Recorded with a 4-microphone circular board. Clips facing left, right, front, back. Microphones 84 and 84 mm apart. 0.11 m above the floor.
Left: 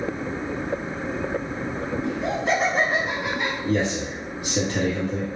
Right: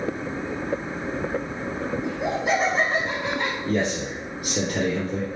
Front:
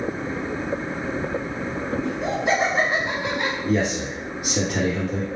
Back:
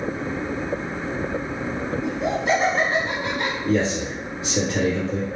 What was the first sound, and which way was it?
Laughter, 110° right.